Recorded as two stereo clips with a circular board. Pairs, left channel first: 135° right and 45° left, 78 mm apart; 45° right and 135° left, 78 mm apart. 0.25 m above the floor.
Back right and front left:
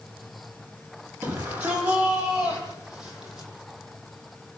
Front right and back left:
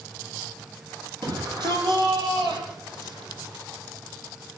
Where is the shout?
110° left, 8.5 m; by 3.5 s 130° left, 10 m.